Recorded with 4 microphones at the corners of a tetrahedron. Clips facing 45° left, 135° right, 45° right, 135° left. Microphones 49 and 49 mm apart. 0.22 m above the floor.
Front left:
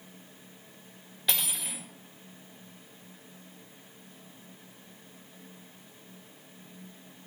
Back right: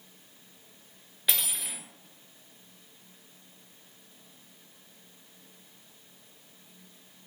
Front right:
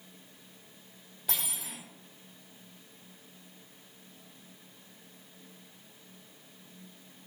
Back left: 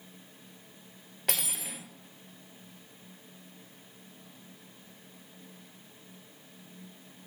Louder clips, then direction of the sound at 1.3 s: Front left 1 dB, back left 3 dB; 140° left.